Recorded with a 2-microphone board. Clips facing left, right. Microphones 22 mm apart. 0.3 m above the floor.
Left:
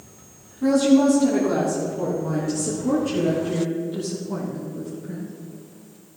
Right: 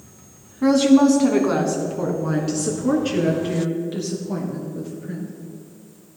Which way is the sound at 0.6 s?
60° right (ahead or behind).